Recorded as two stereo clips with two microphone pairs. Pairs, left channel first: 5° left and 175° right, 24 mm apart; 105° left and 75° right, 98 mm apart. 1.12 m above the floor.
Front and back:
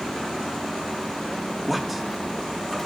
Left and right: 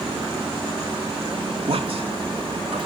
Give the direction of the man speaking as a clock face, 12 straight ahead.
3 o'clock.